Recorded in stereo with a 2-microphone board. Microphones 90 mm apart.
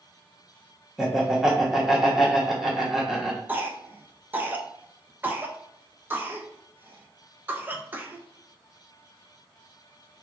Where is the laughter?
5° right (ahead or behind), 0.9 m.